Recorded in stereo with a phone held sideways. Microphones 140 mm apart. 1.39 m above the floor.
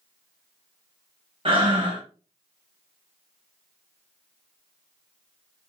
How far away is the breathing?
About 1.1 m.